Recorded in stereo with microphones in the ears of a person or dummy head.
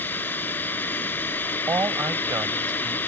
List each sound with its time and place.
0.0 s a machine running: 10° left (ahead or behind)
1.7 s a man speaking: 10° right (ahead or behind)